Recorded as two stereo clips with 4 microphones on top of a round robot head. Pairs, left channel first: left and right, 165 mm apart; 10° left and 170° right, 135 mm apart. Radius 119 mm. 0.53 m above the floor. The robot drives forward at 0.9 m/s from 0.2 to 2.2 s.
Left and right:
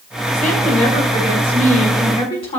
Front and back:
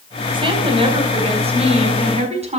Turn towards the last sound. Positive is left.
turn(degrees=150)